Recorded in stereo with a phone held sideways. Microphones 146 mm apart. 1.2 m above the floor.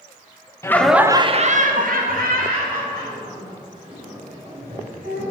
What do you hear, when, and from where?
0.6 s laughter: 20° left (ahead or behind), 0.6 m; by 5.2 s 80° right, 3.5 m